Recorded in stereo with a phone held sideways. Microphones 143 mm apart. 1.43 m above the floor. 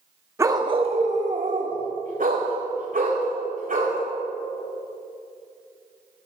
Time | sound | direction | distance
0.4 | a dog barking | 20° right (ahead or behind) | 1.0 m